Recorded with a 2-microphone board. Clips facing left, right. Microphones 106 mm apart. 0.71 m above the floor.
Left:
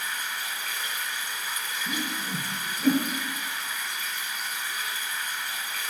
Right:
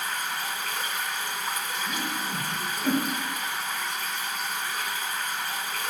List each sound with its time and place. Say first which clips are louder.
0.0 s running water: right 3 dB; 55° right (ahead or behind), 0.9 m
1.9 s a whoosh: left 2 dB; 35° left (ahead or behind), 3 m